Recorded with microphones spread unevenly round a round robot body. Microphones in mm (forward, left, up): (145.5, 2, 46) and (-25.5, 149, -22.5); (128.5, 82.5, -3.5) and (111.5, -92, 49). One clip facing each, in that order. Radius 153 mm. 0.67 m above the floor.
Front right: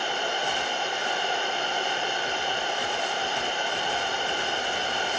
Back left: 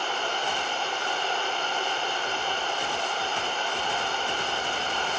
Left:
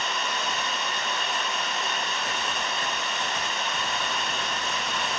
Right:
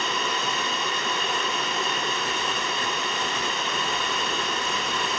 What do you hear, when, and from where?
0.0 s running water: 125° right, 0.8 m